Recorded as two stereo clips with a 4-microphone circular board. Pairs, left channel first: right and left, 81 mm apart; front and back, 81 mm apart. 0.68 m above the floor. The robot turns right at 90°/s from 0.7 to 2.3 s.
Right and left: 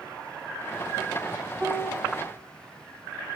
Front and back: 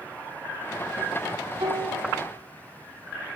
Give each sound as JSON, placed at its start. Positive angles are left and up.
{"t": 1.6, "sound": "a piano", "azimuth_deg": 175, "distance_m": 1.2}